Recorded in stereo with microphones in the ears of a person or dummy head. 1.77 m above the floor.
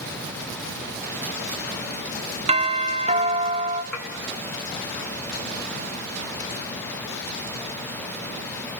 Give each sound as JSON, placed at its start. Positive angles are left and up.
{"t": 2.5, "sound": "a doorbell", "side_deg": -30, "distance_m": 1.0}
{"t": 3.9, "sound": "dishes clattering", "side_deg": 5, "distance_m": 3.5}